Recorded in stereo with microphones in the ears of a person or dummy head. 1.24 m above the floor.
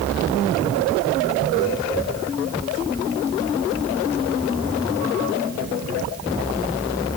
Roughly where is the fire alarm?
I don't hear a fire alarm.